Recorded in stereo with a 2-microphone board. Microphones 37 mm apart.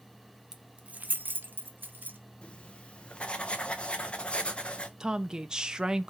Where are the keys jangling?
15° right (ahead or behind), 0.6 m; by 2.2 s 60° right (ahead or behind), 1.2 m.